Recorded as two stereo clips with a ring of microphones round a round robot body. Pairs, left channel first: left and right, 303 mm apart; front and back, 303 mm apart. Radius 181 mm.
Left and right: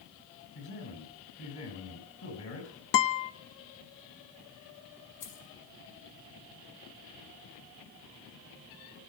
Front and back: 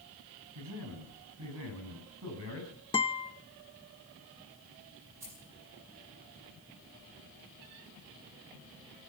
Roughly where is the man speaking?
Behind left.